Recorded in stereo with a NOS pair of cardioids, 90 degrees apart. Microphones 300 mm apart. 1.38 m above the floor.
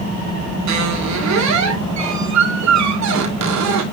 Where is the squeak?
70° right, 2.5 m.